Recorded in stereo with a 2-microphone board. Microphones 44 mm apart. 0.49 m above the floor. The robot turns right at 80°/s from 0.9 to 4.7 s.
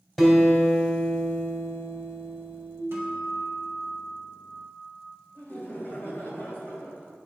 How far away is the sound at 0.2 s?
About 2 m.